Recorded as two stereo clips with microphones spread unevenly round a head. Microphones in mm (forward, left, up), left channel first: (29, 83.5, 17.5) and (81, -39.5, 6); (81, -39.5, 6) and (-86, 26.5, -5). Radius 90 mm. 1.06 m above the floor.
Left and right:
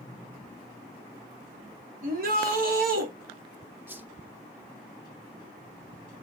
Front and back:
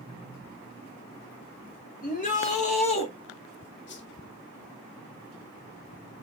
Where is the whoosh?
5° left, 1.4 m.